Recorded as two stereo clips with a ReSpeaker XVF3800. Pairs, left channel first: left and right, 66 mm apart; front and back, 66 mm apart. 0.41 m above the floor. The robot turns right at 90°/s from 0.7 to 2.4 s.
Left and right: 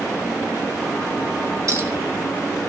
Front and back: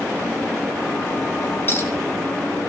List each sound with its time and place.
1.7 s a clink: 55° right, 1.8 m; by 1.9 s 30° right, 1.8 m